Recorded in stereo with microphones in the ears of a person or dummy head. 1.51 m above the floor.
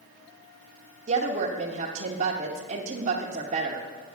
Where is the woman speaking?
40° right (ahead or behind), 1.1 m.